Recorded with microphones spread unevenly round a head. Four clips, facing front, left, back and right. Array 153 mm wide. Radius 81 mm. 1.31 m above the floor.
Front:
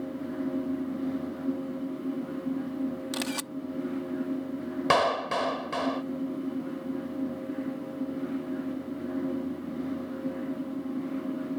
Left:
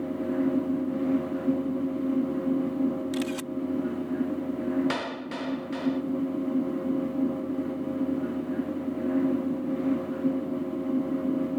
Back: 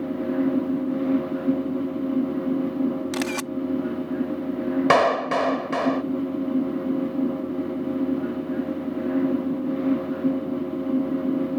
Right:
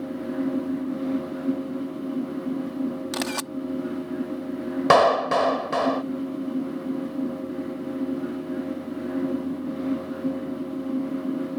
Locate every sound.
3.1 s a camera shutter: 120° right
4.9 s a clap: 120° right